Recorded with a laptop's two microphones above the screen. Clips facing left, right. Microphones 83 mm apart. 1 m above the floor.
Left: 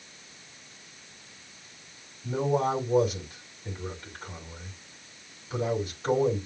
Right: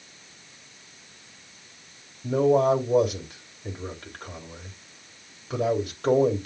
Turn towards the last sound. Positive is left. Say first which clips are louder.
# right 7 dB
turn(degrees=-75)  # may be behind; listen again after turning